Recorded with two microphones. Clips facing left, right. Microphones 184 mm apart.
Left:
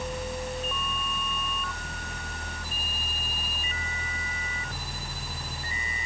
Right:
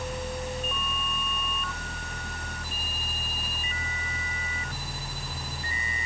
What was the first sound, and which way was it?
Only background noise.